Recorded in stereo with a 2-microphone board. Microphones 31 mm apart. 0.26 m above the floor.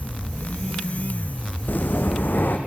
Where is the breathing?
75° left (ahead or behind), 2.5 m.